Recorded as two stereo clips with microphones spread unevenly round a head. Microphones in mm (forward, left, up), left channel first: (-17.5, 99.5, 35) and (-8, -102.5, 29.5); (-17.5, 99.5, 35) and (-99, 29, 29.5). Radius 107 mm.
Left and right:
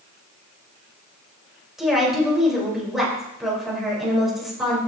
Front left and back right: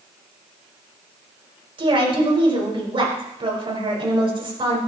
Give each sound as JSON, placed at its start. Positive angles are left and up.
{"t": 1.8, "sound": "a woman speaking", "azimuth_deg": -175, "distance_m": 4.5}